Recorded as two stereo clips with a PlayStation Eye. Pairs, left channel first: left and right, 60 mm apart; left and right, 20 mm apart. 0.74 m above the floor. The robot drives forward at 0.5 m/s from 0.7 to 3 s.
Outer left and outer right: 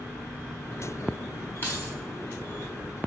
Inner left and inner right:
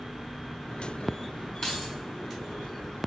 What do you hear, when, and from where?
1.6 s keys jangling: 30° left (ahead or behind), 3.5 m